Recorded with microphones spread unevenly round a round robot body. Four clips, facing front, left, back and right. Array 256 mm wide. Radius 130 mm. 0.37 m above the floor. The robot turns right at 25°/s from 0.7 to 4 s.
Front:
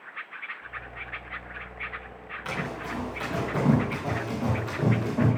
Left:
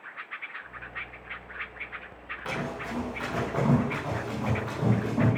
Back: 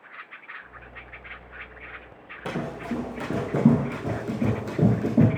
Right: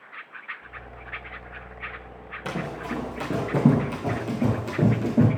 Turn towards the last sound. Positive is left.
turn(degrees=-155)